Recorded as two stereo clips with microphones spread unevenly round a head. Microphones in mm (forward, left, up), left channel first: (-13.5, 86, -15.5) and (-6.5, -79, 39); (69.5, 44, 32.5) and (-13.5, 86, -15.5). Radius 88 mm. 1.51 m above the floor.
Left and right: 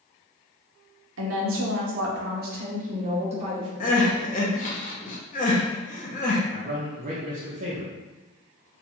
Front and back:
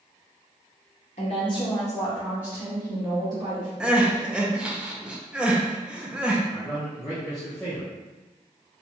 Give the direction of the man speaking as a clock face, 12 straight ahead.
3 o'clock.